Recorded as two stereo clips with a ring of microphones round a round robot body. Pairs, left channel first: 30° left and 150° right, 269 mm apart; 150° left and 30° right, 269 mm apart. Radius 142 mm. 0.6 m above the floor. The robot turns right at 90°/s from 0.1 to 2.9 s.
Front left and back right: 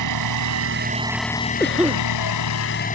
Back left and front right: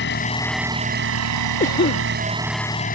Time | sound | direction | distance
0.0 | an engine running | 160° right | ?
1.6 | a cough | 105° left | ?